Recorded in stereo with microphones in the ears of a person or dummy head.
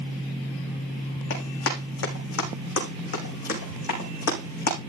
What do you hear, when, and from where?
1.3 s running footsteps: 75° left (ahead or behind), 6 m; by 4.8 s 55° left (ahead or behind), 6 m